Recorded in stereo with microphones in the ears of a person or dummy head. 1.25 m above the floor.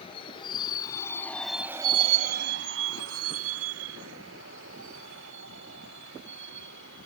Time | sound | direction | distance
0.0 | a vehicle | 35° left (ahead or behind) | ?